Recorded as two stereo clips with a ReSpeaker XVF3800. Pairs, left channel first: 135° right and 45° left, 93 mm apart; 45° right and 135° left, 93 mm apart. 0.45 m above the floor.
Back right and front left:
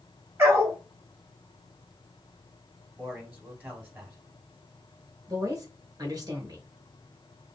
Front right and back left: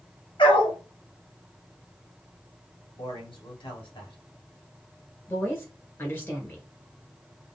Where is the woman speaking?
10° left, 1.9 m.